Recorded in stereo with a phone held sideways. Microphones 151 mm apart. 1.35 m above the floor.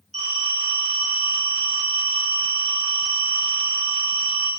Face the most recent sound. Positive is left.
turn(degrees=-45)  # may be behind; listen again after turning